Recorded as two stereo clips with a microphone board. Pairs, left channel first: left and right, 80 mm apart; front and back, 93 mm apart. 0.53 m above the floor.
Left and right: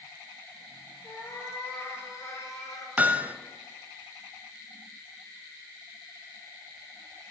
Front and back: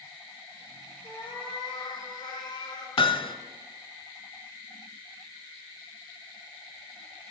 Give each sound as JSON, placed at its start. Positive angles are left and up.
{"t": 1.0, "sound": "a cat meowing", "azimuth_deg": 30, "distance_m": 3.0}
{"t": 3.0, "sound": "hammering", "azimuth_deg": -20, "distance_m": 0.6}